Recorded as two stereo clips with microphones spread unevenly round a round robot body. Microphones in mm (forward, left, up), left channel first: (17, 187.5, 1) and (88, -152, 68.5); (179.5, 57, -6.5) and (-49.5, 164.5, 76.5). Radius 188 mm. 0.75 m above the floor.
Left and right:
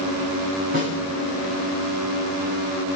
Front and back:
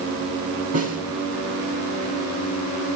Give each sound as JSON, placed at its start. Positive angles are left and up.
{"t": 0.7, "sound": "a snare drum", "azimuth_deg": -150, "distance_m": 8.0}